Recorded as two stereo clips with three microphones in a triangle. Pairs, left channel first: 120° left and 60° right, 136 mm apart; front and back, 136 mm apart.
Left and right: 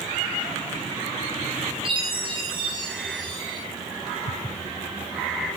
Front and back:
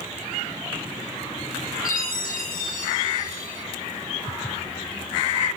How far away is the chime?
About 9.5 m.